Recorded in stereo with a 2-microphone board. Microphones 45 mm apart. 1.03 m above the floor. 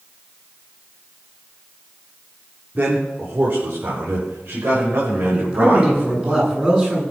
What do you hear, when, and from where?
2.8 s a man speaking: 45° right (ahead or behind), 3 m; by 6.3 s 50° right (ahead or behind), 6.5 m
5.3 s a man speaking: 20° right (ahead or behind), 8.5 m